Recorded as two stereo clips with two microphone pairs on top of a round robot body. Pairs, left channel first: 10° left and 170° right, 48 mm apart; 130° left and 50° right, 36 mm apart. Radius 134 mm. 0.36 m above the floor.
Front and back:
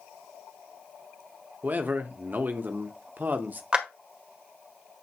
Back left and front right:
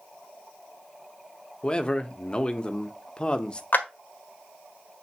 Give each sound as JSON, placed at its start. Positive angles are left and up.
{"t": 1.6, "sound": "a man speaking", "azimuth_deg": 165, "distance_m": 1.0}
{"t": 3.7, "sound": "a clap", "azimuth_deg": 125, "distance_m": 1.7}